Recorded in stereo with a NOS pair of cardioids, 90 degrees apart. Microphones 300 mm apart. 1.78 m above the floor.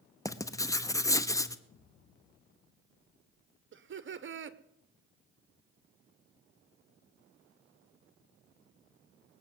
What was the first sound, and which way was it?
Writing, 10° left.